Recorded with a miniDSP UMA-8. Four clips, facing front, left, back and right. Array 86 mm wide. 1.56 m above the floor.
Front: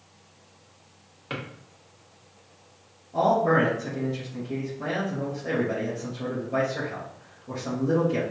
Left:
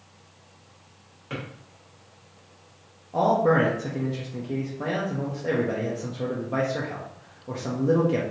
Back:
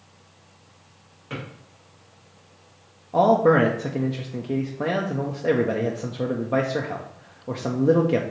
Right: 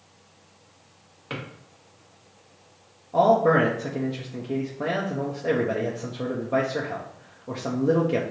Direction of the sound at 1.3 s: 45° right.